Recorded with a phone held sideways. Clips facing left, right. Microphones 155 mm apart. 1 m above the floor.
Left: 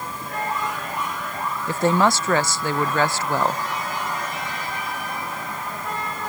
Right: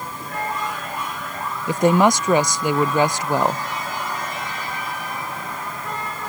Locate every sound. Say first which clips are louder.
1.7 s a woman speaking: right 3 dB; 15° right (ahead or behind)